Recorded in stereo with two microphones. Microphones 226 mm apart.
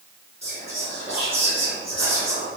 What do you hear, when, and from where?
0.4 s whispering: 30° right (ahead or behind), 1.5 m